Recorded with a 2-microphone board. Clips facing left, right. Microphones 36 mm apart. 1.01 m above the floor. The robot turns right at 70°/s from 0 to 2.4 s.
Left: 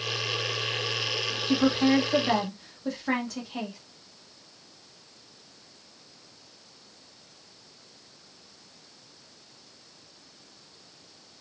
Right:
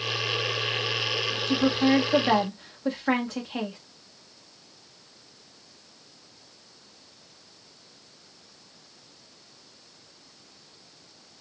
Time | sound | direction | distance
1.5 | a woman speaking | 150° left | 1.3 m